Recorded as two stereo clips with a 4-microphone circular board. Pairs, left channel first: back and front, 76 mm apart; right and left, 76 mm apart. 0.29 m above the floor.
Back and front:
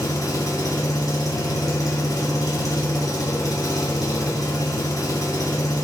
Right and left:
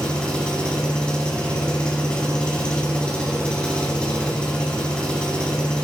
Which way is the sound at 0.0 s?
165° right.